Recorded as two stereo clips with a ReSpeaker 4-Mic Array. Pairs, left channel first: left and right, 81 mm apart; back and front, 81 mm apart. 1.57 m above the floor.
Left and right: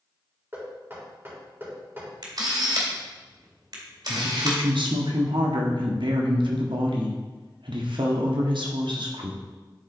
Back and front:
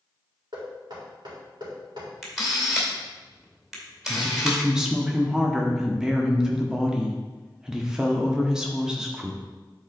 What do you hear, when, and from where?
0.5 s knocking: 30° right, 3.5 m
2.2 s a camera shutter: 90° right, 2 m
4.1 s a woman speaking: 85° right, 1.3 m